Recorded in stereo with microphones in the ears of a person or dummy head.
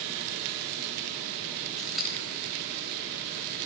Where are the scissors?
5° left (ahead or behind), 3 m.